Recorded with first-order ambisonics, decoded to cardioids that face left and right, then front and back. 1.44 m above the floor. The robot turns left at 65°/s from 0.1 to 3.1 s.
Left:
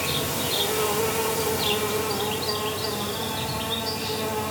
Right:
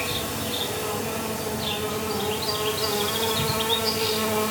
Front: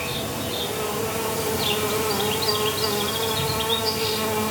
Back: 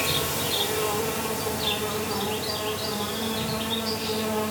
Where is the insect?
140° left, 1.2 m; by 4.5 s 55° right, 1.2 m.